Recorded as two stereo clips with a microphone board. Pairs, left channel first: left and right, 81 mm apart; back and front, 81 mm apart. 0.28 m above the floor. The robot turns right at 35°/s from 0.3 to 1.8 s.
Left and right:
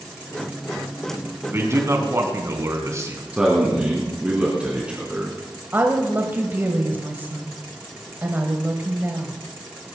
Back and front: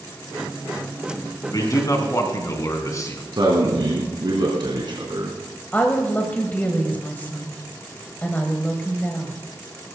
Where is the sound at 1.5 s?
150° right, 3 m; by 3.2 s 140° right, 3 m.